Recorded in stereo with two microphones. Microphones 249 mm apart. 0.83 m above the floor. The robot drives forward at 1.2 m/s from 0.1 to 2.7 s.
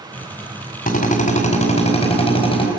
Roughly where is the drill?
Left.